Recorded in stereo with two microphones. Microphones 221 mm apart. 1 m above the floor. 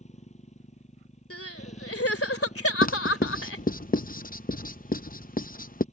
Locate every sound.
0.0 s a motorcycle: 30° left (ahead or behind)
1.3 s crying: 75° left (ahead or behind)
2.8 s writing: 40° left (ahead or behind)